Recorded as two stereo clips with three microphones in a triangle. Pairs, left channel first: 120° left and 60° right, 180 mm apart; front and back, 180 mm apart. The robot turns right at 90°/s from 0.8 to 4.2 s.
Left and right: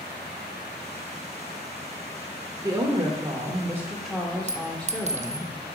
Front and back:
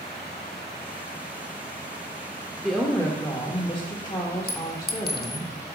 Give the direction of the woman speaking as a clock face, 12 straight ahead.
3 o'clock.